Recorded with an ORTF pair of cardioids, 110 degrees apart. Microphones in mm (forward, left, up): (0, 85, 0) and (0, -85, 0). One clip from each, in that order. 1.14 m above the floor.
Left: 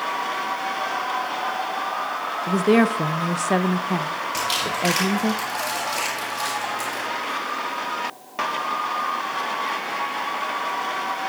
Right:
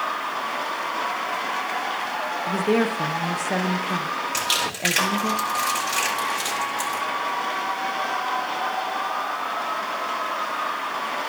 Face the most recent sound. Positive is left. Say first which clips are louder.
# left 1 dB
turn(degrees=-20)